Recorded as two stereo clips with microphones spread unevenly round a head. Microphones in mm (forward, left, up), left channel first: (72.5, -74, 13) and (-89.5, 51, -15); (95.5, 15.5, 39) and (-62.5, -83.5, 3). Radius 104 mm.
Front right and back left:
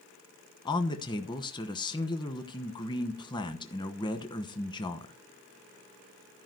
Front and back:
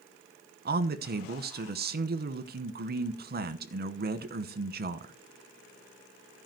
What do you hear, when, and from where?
0.7 s a man speaking: 110° right, 1.1 m